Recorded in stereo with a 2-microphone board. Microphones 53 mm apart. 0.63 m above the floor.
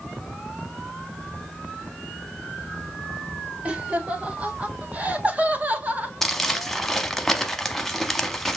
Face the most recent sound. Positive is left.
turn(degrees=5)  # may be behind; listen again after turning